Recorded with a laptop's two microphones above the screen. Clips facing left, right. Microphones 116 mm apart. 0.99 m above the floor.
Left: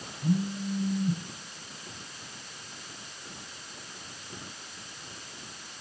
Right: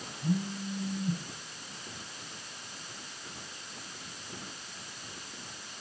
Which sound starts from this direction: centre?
A phone buzzing, at 0.2 s.